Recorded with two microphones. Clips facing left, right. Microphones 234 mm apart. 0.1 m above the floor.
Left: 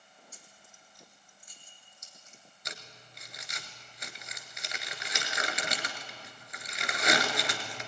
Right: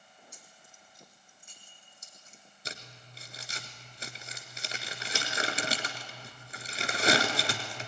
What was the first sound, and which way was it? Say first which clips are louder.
Keys jangling: right 1 dB; 15° right (ahead or behind).